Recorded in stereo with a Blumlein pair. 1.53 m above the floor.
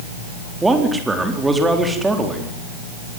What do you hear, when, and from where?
0.6 s a man speaking: 10° right, 4 m